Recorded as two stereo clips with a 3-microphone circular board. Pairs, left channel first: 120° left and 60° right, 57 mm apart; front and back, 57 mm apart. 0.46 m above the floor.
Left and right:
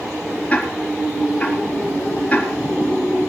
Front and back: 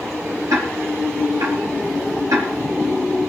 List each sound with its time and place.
0.5 s ticking: 170° right, 4.5 m